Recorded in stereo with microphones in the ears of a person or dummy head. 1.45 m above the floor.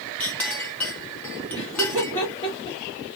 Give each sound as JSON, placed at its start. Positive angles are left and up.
{"t": 0.2, "sound": "a clink", "side_deg": 10, "distance_m": 0.6}
{"t": 1.5, "sound": "laughter", "side_deg": 15, "distance_m": 2.0}